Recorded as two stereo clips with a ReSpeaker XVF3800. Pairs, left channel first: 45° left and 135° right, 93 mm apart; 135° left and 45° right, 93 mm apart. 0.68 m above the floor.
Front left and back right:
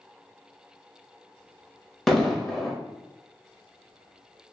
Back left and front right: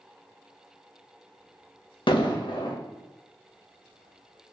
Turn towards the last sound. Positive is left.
turn(degrees=135)